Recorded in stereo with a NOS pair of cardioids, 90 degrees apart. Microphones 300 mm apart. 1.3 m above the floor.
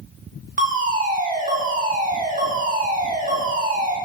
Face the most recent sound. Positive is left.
turn(degrees=-25)